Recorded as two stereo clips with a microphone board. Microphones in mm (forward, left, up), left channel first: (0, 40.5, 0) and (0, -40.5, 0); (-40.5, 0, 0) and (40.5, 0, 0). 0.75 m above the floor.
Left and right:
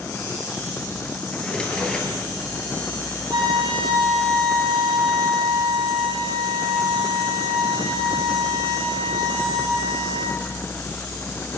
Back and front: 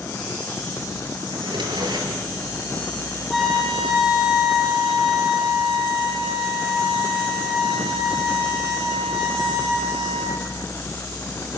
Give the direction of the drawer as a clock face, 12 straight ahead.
12 o'clock.